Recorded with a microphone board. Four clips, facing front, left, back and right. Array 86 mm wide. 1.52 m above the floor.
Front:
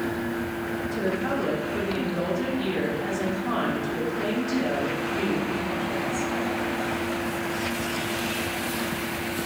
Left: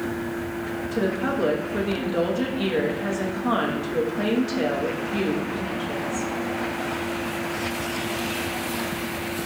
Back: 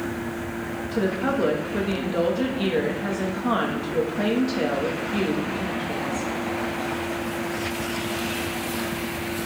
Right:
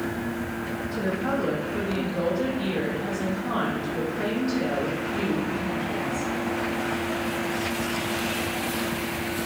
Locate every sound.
0.9 s a woman speaking: 135° left, 1.6 m